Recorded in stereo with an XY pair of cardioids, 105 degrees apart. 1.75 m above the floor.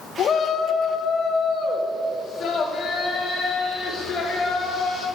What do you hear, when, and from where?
0.2 s a shout: 50° left, 1.4 m; by 5.0 s 45° left, 7 m